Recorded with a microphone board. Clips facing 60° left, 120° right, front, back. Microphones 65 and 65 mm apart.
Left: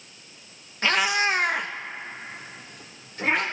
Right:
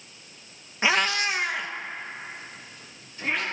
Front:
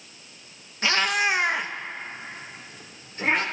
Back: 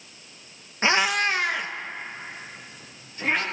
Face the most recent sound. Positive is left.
turn(degrees=40)